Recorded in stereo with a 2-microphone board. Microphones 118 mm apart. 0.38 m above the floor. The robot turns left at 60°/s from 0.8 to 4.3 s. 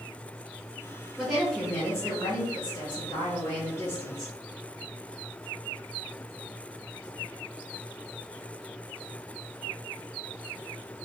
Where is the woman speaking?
170° right, 1.1 m; by 4.3 s straight ahead, 1.1 m.